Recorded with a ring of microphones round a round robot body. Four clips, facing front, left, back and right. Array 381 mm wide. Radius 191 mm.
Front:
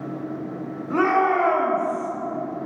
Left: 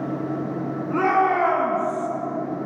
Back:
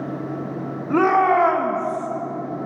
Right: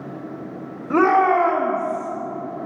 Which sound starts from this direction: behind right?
A shout, at 0.9 s.